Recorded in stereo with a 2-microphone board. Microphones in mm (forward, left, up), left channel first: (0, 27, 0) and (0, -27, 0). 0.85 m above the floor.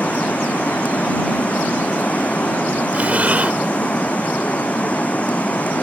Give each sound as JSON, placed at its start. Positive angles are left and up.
{"t": 0.0, "sound": "running water", "side_deg": 25}
{"t": 2.9, "sound": "breathing", "side_deg": -30}